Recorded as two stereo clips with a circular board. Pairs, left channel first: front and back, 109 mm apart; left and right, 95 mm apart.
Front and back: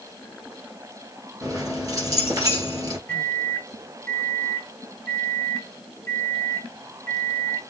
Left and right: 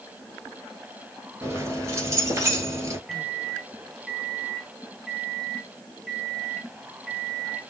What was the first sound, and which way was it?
Keys jangling, 135° right.